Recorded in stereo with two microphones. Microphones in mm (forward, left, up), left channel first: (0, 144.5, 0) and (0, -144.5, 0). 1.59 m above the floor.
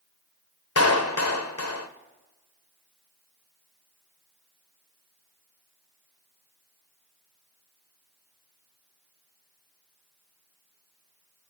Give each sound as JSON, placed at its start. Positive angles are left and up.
{"t": 0.8, "sound": "a clap", "side_deg": 55, "distance_m": 0.7}